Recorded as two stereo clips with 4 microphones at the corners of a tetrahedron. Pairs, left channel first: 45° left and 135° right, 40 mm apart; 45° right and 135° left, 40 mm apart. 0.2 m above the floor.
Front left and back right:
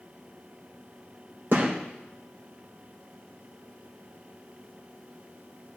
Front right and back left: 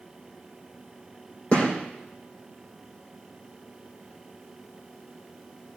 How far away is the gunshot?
About 6 m.